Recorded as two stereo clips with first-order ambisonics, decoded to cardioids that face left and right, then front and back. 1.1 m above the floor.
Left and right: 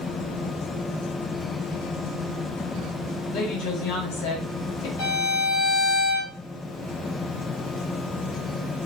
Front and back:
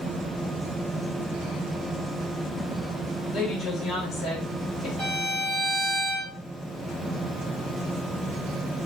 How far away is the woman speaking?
About 1.4 m.